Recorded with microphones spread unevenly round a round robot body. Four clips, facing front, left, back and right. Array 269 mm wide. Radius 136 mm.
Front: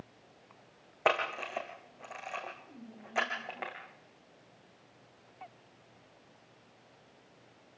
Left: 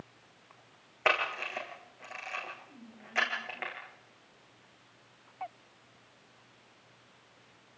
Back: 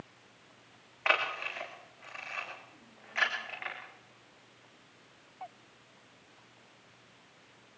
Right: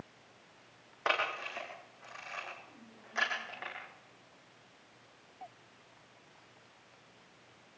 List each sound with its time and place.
1.1 s a camera shutter: 20° left, 8.5 m